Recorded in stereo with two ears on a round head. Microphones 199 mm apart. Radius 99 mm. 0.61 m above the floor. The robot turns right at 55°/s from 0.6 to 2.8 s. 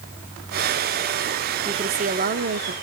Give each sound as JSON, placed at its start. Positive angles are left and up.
{"t": 1.6, "sound": "a woman speaking", "azimuth_deg": -155, "distance_m": 1.1}